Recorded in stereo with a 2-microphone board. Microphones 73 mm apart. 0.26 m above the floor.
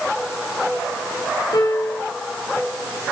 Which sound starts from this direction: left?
A piano, at 1.5 s.